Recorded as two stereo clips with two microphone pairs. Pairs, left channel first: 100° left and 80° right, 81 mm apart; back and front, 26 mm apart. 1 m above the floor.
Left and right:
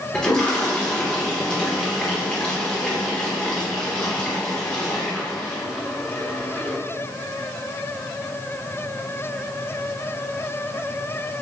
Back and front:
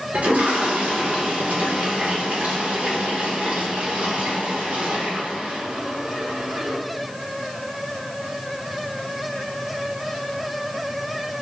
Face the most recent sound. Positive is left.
turn(degrees=20)